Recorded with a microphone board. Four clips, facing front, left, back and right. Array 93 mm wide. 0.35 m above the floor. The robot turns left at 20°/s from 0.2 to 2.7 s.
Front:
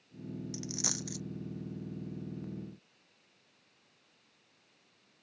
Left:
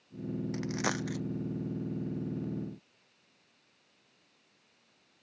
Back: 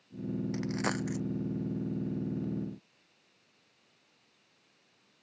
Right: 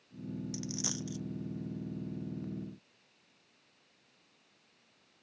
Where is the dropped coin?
135° left; by 1.2 s 120° left.